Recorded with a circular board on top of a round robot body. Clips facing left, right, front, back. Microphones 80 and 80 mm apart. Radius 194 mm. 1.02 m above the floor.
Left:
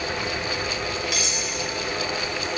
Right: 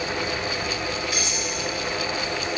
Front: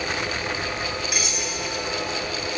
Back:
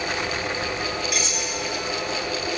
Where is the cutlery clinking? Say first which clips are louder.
Even, back 1 dB; 85° left, 1.2 m.